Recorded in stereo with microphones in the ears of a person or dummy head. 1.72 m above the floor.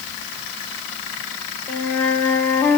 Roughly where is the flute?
Centre.